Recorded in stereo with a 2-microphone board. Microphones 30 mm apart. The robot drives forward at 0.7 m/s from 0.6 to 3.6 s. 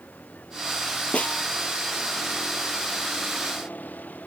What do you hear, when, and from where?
0.0 s a vehicle: 70° left (ahead or behind); by 4.3 s 75° left (ahead or behind)
1.1 s a snare drum: 50° left (ahead or behind); by 1.4 s 45° left (ahead or behind)